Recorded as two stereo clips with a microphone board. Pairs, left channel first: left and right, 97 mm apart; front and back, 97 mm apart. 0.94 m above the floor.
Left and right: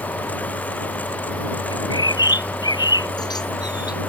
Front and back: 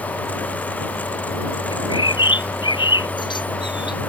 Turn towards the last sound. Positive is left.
turn(degrees=40)